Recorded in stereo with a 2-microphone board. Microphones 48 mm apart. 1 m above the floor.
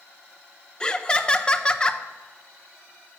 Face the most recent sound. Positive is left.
turn(degrees=20)  # may be behind; listen again after turning